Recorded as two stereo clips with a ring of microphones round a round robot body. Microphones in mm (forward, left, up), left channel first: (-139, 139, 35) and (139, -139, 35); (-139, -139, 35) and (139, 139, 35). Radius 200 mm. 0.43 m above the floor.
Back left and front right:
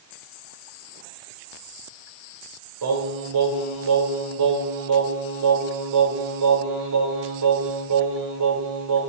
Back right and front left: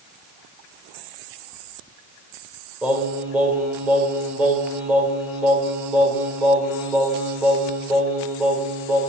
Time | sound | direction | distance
2.8 | singing | 40° right | 1.7 m